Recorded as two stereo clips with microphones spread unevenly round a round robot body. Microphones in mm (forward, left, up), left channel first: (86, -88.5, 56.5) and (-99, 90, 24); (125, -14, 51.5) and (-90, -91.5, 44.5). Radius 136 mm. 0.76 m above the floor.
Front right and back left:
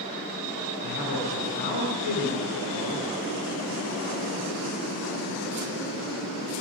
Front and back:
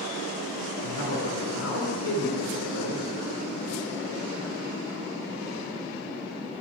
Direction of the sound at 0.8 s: 20° right.